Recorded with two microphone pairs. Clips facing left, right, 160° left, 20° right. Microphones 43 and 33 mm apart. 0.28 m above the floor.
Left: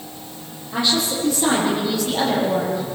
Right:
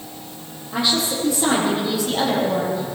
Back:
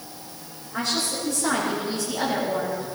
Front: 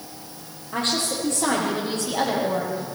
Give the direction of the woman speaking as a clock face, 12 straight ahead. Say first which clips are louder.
Even, front 2 dB; 12 o'clock.